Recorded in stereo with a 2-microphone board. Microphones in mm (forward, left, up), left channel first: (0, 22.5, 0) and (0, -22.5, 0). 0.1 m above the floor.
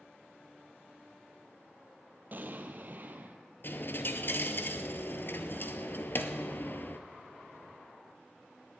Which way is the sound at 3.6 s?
50° left (ahead or behind).